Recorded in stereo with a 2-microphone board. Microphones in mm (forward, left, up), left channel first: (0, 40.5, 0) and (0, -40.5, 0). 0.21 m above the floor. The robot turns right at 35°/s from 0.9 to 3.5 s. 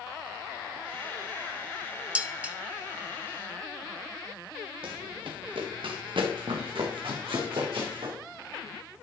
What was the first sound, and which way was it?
Dishes clattering, 15° right (ahead or behind).